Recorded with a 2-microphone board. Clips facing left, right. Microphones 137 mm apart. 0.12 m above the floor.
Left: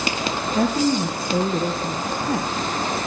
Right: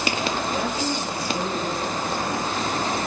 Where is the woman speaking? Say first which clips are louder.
Left 6 dB; 60° left (ahead or behind), 2.5 m.